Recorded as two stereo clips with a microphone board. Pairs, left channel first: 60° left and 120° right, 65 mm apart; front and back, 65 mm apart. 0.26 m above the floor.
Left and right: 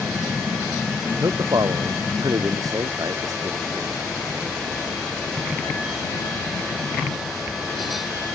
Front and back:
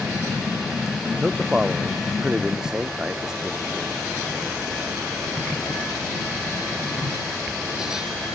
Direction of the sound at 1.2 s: 100° right.